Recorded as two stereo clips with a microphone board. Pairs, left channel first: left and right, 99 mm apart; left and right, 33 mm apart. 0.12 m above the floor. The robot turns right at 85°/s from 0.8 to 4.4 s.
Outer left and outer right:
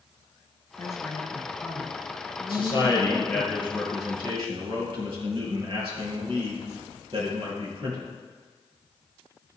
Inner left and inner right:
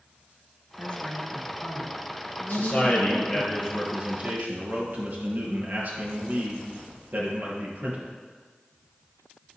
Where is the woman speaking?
75° left, 1.2 m; by 3.5 s 60° right, 1.2 m.